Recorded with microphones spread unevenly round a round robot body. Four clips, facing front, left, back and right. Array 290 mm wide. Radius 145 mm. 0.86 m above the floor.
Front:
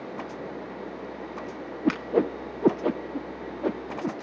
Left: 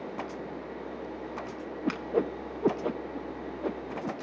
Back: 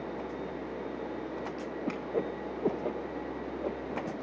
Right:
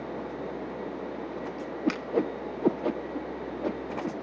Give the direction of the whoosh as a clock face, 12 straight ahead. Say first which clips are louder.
Right 1 dB, front 10 dB; 12 o'clock.